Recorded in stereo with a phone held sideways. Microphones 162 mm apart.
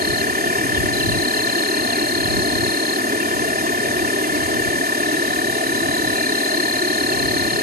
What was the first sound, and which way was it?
An insect, 70° right (ahead or behind).